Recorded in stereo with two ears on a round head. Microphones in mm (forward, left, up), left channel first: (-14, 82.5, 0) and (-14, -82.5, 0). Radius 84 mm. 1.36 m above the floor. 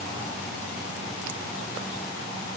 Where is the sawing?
I don't hear sawing.